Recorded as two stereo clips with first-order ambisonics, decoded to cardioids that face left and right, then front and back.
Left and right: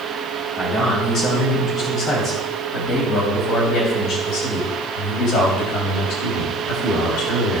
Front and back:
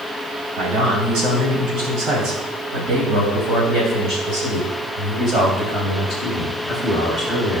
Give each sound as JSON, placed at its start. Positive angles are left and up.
{"t": 0.6, "sound": "a man speaking", "azimuth_deg": 155, "distance_m": 4.0}